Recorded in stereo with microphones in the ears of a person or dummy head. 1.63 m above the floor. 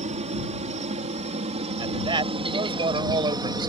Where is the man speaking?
30° right (ahead or behind).